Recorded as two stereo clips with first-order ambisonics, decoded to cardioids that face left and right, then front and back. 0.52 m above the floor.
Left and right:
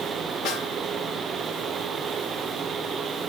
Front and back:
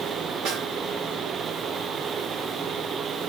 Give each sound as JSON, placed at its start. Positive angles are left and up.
{"t": 0.5, "sound": "a snare drum", "azimuth_deg": 135, "distance_m": 3.0}